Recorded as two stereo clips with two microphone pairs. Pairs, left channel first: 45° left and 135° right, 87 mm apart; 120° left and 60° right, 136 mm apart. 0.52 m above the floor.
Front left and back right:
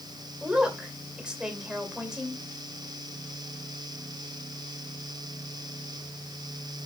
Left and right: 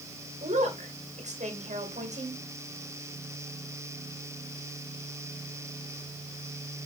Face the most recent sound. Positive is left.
turn(degrees=-55)